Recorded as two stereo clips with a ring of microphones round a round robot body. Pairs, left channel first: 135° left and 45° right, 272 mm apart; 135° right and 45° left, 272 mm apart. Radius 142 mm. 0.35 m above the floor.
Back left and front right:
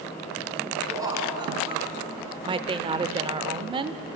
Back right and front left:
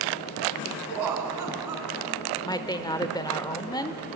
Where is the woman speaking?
85° right, 1.0 m.